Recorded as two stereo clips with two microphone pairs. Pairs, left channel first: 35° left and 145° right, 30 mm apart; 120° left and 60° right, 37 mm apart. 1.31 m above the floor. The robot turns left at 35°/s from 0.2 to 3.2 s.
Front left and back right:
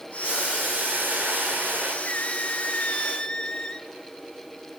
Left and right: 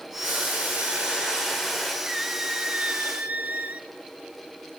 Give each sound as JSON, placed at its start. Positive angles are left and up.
{"t": 0.2, "sound": "boiling", "azimuth_deg": -90, "distance_m": 5.0}
{"t": 2.0, "sound": "a squeak", "azimuth_deg": 15, "distance_m": 1.2}